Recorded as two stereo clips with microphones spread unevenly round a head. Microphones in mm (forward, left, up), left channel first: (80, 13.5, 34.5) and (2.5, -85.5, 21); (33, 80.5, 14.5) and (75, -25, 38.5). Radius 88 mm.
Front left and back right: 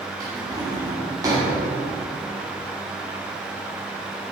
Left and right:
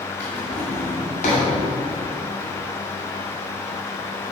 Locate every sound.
0.2 s a drawer: 160° left, 2.5 m